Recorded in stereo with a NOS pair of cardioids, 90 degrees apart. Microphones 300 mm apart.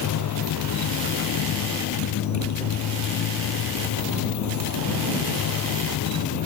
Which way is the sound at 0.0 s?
70° left.